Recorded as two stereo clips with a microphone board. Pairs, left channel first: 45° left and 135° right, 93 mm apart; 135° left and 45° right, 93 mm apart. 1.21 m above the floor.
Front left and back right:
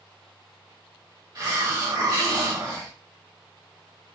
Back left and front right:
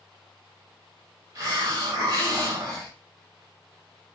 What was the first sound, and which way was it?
A hiss, 95° right.